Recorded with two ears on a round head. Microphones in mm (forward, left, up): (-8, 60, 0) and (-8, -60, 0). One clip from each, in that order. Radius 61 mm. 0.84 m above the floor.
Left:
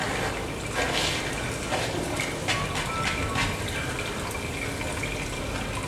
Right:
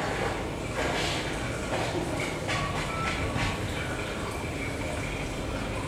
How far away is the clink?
No clink in this recording.